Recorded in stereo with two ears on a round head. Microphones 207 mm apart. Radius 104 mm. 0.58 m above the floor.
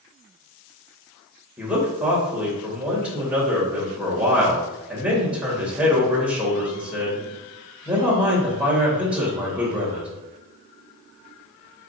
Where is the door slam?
I don't hear a door slam.